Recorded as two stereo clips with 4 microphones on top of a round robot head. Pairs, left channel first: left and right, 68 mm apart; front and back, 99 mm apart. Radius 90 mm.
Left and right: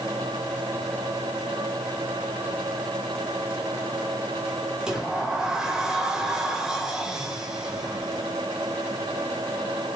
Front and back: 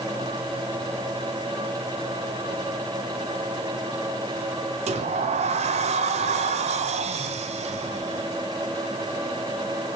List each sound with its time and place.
4.9 s a sliding door: 170° right, 1.2 m